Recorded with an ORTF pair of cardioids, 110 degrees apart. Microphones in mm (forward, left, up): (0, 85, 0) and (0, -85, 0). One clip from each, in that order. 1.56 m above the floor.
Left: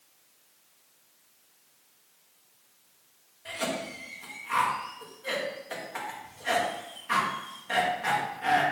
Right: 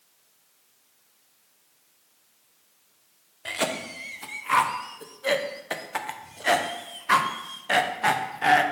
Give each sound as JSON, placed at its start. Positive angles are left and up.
{"t": 3.5, "sound": "a cough", "azimuth_deg": -50, "distance_m": 0.7}